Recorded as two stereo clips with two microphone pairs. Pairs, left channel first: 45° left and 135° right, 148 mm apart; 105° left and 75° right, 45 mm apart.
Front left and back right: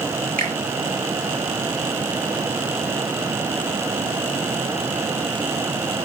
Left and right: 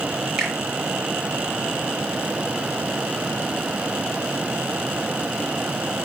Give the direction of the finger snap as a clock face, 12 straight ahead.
5 o'clock.